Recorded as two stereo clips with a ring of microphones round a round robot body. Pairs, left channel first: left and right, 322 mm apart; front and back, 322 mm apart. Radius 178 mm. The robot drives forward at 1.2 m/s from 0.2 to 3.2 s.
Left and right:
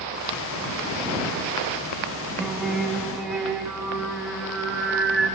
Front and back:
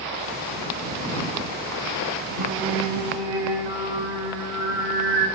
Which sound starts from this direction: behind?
Singing, at 2.4 s.